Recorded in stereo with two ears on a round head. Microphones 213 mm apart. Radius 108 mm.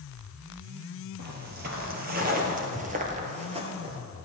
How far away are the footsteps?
About 2.5 m.